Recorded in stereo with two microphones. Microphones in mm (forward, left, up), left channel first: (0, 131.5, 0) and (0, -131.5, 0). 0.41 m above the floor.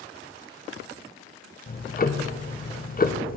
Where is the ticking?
35° left (ahead or behind), 0.7 m.